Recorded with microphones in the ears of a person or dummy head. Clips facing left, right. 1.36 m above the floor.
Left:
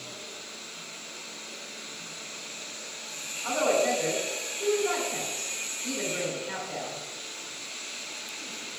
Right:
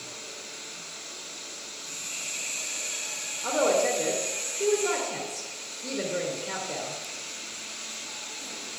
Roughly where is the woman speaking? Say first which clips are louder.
Right 1 dB; right.